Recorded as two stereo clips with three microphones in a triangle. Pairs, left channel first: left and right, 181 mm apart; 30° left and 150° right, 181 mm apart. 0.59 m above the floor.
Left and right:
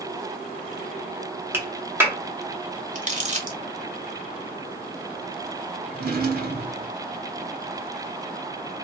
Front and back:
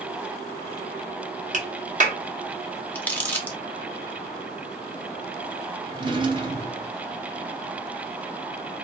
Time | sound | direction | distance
1.5 | a clap | 165° right | 0.8 m
3.0 | crumpling | 50° right | 0.6 m
5.9 | a drawer | 90° right | 0.7 m